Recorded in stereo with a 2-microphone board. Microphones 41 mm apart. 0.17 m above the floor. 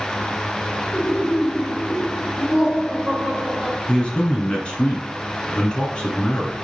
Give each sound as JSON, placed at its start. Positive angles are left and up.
{"t": 0.9, "sound": "laughter", "side_deg": -25, "distance_m": 2.5}
{"t": 3.9, "sound": "a man speaking", "side_deg": 25, "distance_m": 1.5}